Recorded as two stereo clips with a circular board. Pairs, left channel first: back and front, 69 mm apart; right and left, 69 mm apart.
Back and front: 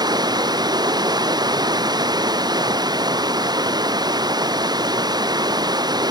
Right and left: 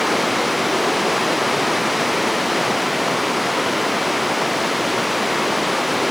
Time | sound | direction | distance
0.0 | running water | straight ahead | ?